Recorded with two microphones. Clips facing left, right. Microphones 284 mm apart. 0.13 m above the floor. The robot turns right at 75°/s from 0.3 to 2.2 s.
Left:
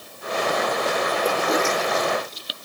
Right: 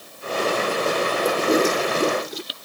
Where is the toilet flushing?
170° right; by 2.4 s 100° right.